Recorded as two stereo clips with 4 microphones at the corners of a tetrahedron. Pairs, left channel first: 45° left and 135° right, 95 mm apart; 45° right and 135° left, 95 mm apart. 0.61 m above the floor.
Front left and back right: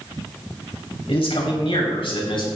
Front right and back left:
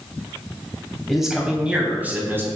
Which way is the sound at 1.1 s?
45° left.